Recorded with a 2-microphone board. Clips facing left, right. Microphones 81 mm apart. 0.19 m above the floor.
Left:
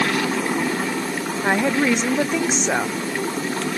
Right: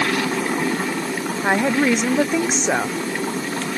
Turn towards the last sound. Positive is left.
turn(degrees=-10)  # may be behind; listen again after turning